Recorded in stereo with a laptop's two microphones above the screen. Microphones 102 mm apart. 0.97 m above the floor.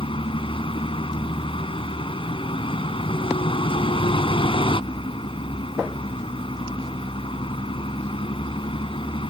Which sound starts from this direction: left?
A vehicle, at 0.0 s.